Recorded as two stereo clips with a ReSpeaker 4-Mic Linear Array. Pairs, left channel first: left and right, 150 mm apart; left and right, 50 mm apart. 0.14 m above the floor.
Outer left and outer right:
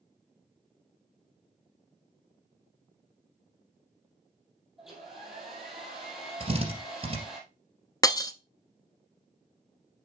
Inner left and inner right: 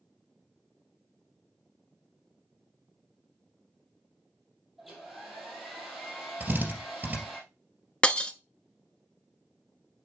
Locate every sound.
4.8 s a hair dryer: centre (ahead or behind), 3 m
6.4 s a drill: 35° right (ahead or behind), 3 m
8.0 s breaking glass: 25° left (ahead or behind), 0.6 m